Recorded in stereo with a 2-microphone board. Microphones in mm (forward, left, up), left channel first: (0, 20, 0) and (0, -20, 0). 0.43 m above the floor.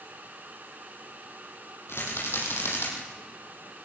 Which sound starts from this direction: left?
A rattle, at 1.9 s.